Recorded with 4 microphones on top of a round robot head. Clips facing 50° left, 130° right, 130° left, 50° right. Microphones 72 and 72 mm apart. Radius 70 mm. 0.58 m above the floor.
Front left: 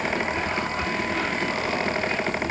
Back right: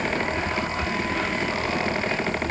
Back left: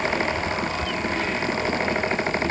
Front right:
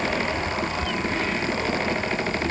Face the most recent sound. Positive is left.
No sound to turn to.